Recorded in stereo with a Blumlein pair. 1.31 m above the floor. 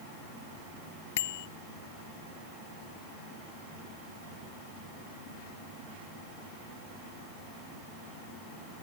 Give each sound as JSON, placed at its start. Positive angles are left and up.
{"t": 1.2, "sound": "a bicycle bell", "azimuth_deg": 55}